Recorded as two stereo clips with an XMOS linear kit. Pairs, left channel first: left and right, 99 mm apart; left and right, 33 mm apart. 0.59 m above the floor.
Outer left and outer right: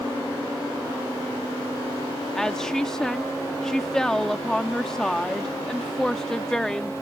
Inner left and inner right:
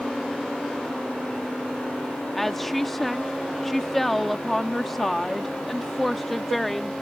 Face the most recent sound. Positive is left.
turn(degrees=5)  # may be behind; listen again after turning